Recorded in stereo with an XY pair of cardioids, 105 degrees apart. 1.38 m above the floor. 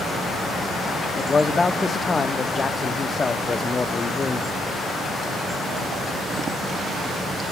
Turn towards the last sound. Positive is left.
turn(degrees=30)